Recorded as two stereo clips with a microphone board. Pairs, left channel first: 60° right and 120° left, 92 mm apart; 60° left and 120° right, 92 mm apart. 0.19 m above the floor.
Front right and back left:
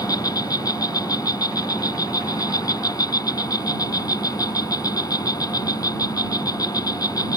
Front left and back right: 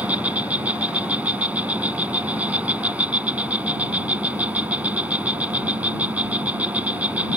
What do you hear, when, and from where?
0.0 s an insect: 50° right